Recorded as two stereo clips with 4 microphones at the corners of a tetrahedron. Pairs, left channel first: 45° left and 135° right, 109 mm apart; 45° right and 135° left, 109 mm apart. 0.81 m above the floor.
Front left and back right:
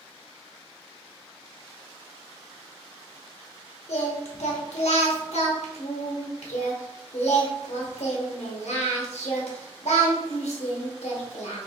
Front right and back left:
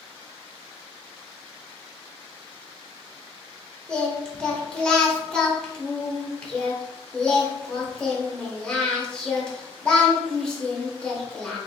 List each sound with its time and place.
3.9 s singing: 35° left, 0.7 m